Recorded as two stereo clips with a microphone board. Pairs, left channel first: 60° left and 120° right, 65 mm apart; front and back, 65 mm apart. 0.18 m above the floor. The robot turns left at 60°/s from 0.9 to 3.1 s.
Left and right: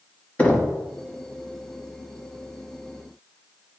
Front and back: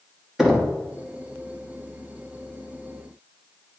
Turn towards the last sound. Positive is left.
turn(degrees=-30)